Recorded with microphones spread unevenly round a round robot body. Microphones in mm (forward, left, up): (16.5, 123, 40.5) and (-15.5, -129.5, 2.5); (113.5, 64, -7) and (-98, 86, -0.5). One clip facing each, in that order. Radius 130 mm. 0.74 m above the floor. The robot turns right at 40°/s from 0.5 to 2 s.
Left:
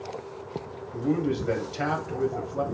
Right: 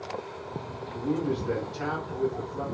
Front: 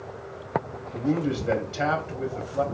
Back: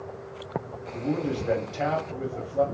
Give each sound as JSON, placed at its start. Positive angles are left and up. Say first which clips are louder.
{"t": 0.9, "sound": "a man speaking", "louder": "left 3 dB, front 3 dB", "azimuth_deg": 55, "distance_m": 1.6}